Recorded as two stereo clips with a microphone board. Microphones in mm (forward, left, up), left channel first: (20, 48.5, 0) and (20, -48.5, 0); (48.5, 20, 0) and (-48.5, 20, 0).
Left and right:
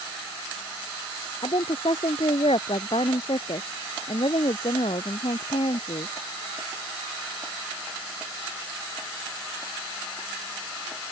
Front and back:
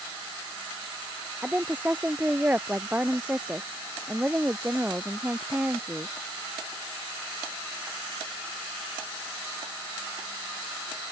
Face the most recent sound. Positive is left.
turn(degrees=105)